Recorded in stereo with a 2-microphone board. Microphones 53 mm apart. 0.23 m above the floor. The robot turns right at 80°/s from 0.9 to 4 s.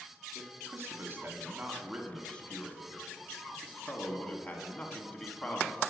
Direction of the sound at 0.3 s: 90° right.